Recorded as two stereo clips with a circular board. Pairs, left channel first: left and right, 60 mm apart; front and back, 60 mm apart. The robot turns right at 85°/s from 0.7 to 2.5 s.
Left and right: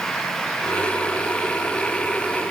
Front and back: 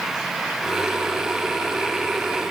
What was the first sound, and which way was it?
Only background noise.